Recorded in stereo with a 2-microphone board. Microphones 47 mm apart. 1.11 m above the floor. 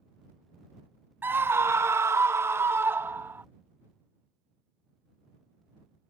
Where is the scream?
50° right (ahead or behind); by 3.5 s 55° right (ahead or behind).